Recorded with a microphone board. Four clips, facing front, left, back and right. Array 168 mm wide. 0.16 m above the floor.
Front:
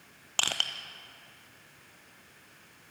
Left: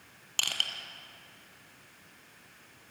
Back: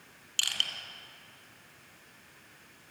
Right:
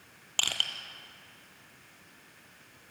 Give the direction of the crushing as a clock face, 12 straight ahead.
1 o'clock.